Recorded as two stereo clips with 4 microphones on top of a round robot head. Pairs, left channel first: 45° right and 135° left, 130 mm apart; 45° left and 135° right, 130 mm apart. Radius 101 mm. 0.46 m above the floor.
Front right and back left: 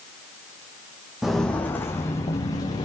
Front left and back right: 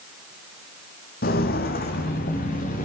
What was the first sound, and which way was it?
Footsteps, 50° left.